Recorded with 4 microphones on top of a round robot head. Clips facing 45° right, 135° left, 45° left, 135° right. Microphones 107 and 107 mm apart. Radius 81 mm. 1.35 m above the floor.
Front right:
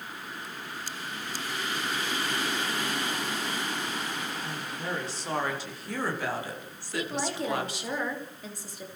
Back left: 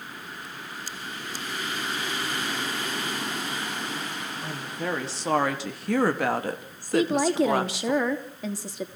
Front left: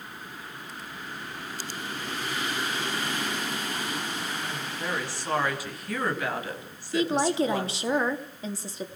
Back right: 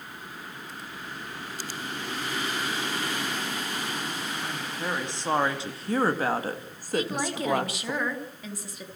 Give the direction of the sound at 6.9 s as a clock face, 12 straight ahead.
8 o'clock.